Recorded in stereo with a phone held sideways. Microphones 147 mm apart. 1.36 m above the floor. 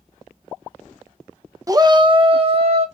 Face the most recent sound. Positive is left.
turn(degrees=-45)  # may be behind; listen again after turning